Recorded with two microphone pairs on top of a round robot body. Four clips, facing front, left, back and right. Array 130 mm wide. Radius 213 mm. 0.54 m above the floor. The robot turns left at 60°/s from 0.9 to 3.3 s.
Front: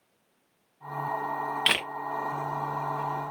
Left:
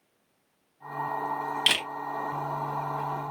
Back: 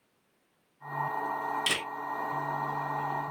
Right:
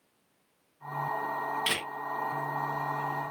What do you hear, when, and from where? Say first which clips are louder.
1.7 s a camera shutter: left 3 dB, front 4 dB; 20° left, 1.2 m; by 1.9 s 10° left, 1.2 m